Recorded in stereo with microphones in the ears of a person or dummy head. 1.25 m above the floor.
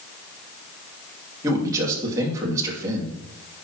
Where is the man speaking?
20° right (ahead or behind), 2.5 m.